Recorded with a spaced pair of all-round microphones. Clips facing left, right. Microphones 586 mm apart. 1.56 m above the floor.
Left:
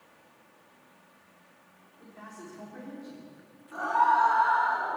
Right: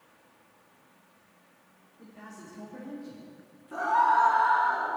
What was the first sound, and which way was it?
A man speaking, 50° right (ahead or behind).